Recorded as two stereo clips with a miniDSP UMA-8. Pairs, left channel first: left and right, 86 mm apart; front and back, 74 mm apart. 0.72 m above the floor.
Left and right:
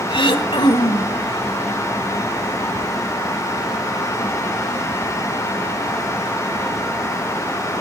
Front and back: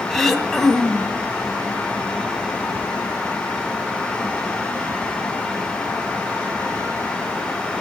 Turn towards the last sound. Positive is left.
turn(degrees=85)